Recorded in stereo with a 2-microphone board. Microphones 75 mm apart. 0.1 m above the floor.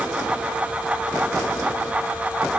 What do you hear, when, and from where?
Only background noise.